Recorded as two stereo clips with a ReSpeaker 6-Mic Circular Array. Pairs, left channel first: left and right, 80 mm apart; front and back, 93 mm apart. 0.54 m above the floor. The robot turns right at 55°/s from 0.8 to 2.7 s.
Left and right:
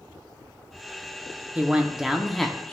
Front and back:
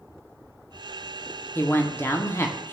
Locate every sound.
1.6 s a man speaking: 40° right, 0.7 m; by 2.7 s 20° left, 0.7 m